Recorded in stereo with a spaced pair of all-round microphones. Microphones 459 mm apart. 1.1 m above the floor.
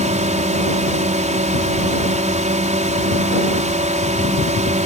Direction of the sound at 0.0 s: 15° right (ahead or behind).